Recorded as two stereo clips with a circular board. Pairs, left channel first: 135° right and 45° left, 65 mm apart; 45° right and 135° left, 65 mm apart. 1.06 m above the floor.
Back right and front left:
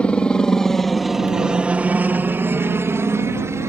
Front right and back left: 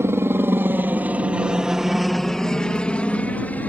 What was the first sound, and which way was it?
A helicopter, 160° left.